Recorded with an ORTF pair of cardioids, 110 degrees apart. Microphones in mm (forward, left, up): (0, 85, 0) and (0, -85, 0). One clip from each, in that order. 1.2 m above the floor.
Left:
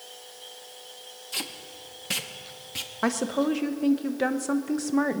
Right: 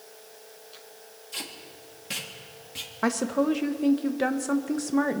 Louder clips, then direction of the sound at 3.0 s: Right 1 dB; straight ahead.